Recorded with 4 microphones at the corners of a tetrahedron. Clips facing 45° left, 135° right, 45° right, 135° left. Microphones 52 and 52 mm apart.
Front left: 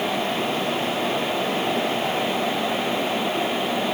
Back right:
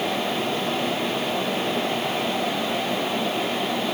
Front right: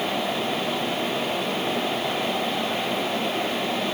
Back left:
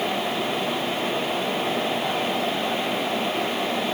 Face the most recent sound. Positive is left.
No sound to turn to.